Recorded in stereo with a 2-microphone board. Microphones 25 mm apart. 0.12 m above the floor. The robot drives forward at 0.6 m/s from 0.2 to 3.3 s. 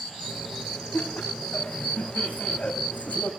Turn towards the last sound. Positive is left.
turn(degrees=75)  # may be behind; listen again after turning